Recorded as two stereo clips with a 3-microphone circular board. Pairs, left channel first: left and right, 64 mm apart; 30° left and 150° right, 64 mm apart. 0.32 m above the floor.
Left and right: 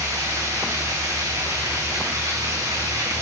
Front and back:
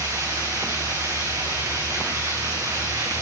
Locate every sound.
0.0 s running water: 115° right, 8 m